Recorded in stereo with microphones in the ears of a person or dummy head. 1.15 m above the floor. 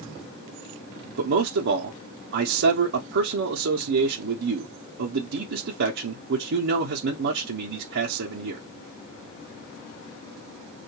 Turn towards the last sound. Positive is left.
turn(degrees=-65)  # may be behind; listen again after turning